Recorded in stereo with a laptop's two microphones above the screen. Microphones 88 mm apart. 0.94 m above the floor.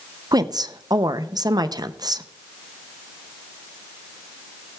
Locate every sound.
0.3 s a woman speaking: 50° right (ahead or behind), 0.5 m